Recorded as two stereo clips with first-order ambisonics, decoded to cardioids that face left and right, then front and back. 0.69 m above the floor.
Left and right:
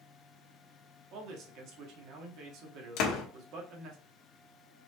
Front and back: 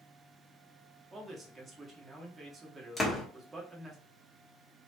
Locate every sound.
1.1 s a man speaking: 110° right, 1.4 m
3.0 s a door slam: 85° left, 1.2 m